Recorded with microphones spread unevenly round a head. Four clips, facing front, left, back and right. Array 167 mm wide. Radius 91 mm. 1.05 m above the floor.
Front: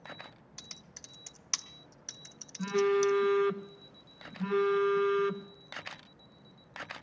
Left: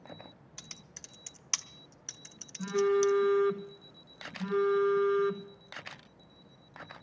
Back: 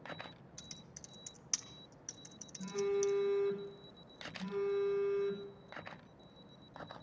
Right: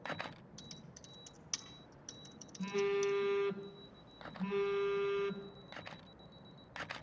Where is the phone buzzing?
20° left, 1.2 m.